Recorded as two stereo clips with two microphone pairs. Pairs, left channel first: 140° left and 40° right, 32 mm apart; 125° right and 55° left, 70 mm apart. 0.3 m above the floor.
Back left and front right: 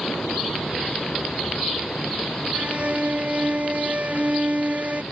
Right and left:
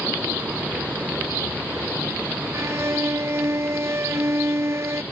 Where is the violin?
5° left.